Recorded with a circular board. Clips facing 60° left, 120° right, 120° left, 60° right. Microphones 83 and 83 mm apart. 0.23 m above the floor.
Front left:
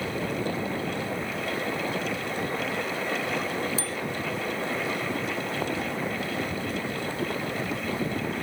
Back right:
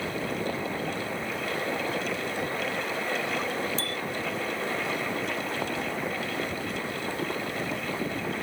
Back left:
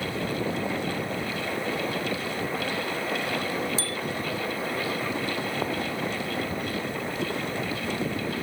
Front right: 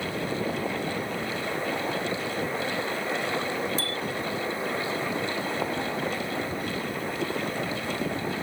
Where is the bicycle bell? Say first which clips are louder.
Even, even; 25° right.